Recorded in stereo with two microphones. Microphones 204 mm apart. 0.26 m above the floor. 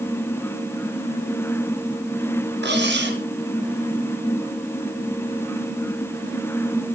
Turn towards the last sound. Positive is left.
turn(degrees=-60)  # may be behind; listen again after turning